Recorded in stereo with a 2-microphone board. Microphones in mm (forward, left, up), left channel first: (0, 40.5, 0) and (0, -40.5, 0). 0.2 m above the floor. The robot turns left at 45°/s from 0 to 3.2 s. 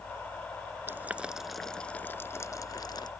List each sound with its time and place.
0.9 s boiling: 30° right (ahead or behind); by 3.1 s 65° left (ahead or behind)